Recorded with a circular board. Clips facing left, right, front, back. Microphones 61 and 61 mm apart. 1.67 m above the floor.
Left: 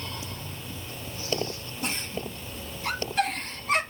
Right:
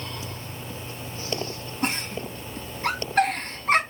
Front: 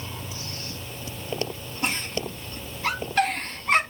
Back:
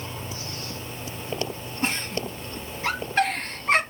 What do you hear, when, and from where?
1.8 s a giggle: 115° right, 3 m